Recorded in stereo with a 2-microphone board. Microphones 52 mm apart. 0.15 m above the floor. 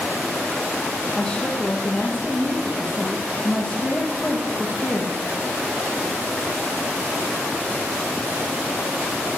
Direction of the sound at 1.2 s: 15° left (ahead or behind).